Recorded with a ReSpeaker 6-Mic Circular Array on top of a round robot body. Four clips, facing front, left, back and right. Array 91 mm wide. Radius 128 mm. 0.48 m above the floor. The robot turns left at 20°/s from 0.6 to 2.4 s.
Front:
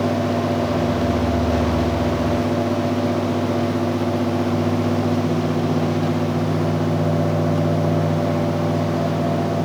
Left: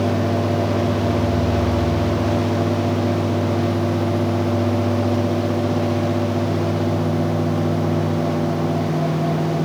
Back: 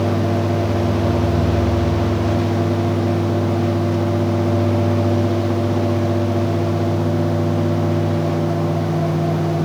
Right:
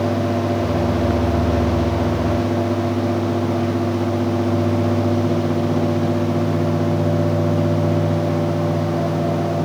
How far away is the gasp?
I don't hear a gasp.